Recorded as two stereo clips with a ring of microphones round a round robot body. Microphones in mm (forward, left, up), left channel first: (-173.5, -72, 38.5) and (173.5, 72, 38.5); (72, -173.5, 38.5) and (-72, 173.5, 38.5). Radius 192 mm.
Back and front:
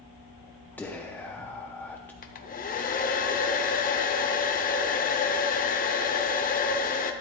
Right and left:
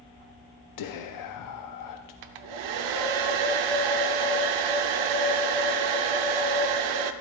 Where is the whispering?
75° right, 0.7 m.